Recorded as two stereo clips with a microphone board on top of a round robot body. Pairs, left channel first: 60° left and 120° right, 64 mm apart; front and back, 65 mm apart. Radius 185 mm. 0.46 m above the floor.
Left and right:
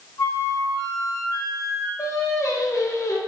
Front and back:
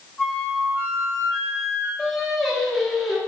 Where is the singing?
85° left, 2.5 m.